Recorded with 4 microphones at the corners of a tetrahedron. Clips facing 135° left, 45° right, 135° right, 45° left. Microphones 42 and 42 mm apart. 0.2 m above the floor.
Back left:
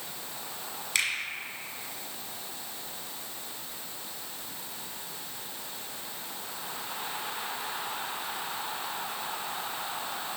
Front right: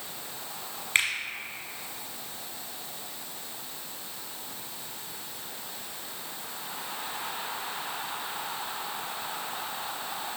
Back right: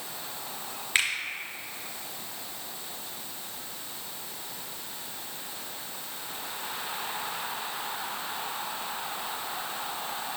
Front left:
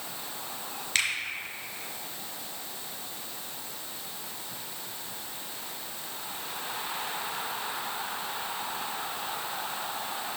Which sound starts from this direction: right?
A finger snap, at 0.9 s.